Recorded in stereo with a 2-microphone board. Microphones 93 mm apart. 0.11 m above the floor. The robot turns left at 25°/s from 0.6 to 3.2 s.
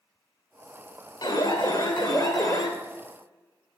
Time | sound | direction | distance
1.2 | an alarm | 85° left | 2 m